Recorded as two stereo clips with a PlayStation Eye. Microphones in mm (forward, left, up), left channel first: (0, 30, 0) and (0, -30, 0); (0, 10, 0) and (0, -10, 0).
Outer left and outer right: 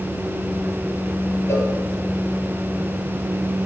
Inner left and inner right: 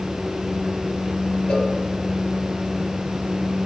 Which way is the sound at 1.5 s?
55° left (ahead or behind).